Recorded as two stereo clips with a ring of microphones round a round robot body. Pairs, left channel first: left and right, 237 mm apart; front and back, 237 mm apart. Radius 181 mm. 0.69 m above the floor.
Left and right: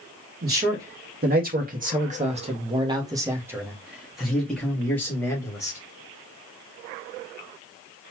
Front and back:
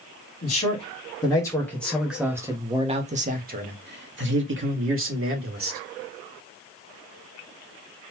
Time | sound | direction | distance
0.4 | a man speaking | 55° right | 1.7 m